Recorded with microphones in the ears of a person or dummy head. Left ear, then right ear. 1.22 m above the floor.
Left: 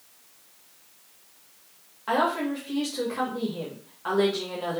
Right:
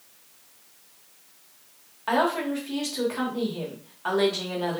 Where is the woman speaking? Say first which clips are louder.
Right 1 dB; 15° right (ahead or behind), 1.3 m.